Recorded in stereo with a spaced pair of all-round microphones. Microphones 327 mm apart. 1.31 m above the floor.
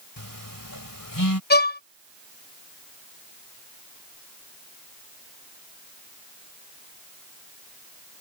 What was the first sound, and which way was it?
A phone buzzing, 80° left.